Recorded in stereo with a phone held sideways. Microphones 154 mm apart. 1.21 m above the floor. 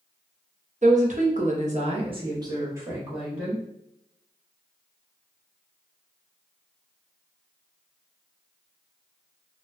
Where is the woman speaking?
50° right (ahead or behind), 1.1 m; by 3.6 s 5° right (ahead or behind), 2.0 m.